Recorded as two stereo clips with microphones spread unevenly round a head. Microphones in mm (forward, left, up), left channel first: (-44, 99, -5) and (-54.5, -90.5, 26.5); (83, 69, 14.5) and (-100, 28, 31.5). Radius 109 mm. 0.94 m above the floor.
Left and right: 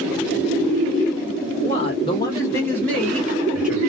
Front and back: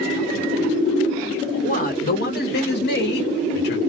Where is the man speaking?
45° left, 1.1 m; by 3.8 s 5° right, 1.6 m.